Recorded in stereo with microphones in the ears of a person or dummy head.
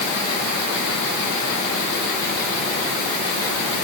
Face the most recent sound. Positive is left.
No sound to turn to.